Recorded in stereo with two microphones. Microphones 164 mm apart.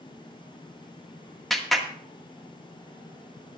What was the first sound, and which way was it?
A clap, centre (ahead or behind).